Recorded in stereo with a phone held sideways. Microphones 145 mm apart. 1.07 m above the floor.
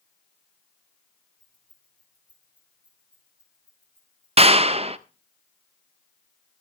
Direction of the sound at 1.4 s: 10° right (ahead or behind).